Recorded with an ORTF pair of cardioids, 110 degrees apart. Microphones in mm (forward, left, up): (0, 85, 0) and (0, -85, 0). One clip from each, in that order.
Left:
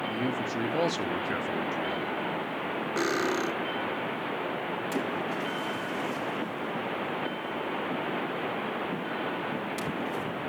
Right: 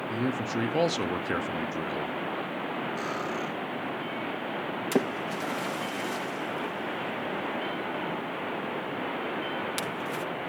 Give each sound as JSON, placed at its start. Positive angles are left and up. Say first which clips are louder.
{"t": 0.1, "sound": "a man speaking", "louder": "even", "azimuth_deg": -20, "distance_m": 0.8}
{"t": 3.0, "sound": "cutlery clinking", "louder": "left 4 dB", "azimuth_deg": 70, "distance_m": 1.4}
{"t": 4.9, "sound": "a splash", "louder": "right 5 dB", "azimuth_deg": -60, "distance_m": 1.3}